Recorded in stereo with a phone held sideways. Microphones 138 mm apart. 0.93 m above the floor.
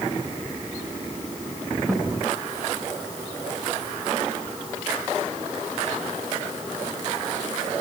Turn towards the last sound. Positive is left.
turn(degrees=0)  # may be behind; listen again after turning